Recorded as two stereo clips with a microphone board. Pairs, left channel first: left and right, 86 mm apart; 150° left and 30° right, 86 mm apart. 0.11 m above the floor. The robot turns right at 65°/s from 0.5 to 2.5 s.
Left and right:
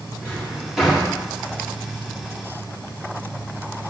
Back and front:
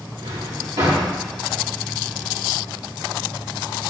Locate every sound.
0.2 s a drawer: 20° right, 3.5 m; by 1.1 s 20° left, 3.5 m